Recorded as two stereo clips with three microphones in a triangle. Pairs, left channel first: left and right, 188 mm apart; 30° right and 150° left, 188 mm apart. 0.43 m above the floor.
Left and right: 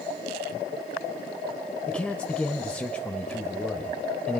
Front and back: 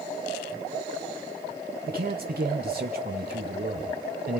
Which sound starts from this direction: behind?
A man speaking, at 1.9 s.